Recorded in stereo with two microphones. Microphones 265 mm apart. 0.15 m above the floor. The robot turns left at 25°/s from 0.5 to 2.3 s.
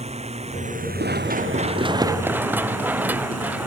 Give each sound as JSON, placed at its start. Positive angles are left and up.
{"t": 0.0, "sound": "a drone", "azimuth_deg": -25}
{"t": 1.0, "sound": "running footsteps", "side_deg": -40}